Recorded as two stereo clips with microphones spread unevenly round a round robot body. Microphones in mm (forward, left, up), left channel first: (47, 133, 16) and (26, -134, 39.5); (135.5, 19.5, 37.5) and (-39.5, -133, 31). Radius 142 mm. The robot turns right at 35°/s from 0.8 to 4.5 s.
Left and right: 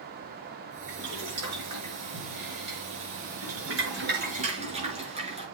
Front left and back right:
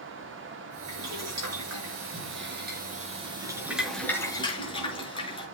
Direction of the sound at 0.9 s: 155° right.